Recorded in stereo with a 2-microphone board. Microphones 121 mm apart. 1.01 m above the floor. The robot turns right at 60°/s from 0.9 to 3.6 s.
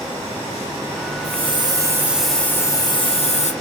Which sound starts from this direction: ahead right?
A hiss, at 1.2 s.